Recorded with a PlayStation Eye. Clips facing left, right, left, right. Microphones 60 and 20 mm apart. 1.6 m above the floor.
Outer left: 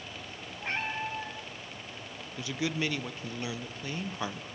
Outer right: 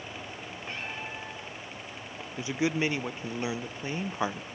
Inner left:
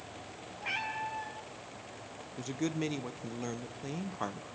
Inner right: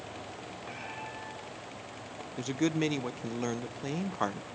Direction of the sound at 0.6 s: 65° left (ahead or behind).